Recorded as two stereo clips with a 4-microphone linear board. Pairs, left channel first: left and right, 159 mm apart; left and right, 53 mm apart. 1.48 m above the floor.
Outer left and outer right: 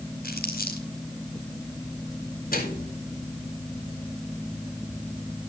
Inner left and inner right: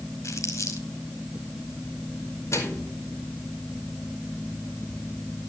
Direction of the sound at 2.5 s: 65° left (ahead or behind).